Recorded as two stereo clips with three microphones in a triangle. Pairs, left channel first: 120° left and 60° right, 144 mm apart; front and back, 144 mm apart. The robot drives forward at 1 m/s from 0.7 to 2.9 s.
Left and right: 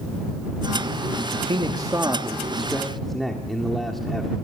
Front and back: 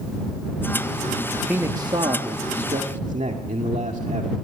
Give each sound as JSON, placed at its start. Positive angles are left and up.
{"t": 1.3, "sound": "a man speaking", "azimuth_deg": -90, "distance_m": 1.0}